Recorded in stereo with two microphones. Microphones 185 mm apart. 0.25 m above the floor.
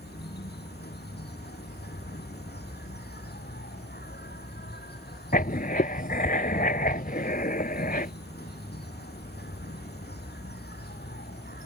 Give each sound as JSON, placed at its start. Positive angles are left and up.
{"t": 0.0, "sound": "an insect", "side_deg": 65}
{"t": 5.3, "sound": "writing", "side_deg": 55}